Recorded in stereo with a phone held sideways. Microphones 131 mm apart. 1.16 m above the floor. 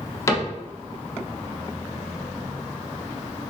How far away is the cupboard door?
About 0.7 m.